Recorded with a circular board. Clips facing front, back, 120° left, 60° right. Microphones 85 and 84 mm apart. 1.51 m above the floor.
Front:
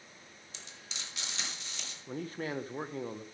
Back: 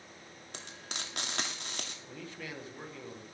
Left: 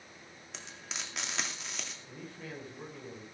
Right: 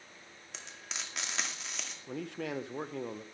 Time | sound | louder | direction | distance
0.5 | frying | back 5 dB, even | 150° right | 2.5 m
2.1 | a man speaking | front 11 dB, right 11 dB | 50° right | 1.5 m